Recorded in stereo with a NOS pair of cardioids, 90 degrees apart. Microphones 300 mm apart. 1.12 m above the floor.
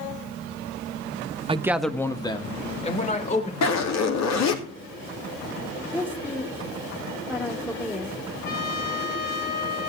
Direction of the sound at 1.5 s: 20° right.